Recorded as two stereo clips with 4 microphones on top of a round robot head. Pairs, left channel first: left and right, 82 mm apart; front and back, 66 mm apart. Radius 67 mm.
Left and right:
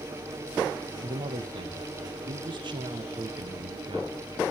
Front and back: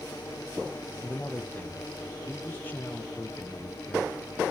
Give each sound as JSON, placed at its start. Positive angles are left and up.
{"t": 1.0, "sound": "a man speaking", "azimuth_deg": -65, "distance_m": 1.5}